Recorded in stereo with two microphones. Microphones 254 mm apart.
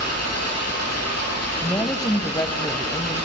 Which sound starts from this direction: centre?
A woman speaking, at 1.6 s.